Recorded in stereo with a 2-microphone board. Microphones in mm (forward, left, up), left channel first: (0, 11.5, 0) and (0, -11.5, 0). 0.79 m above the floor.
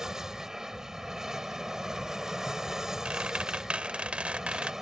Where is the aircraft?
25° right (ahead or behind).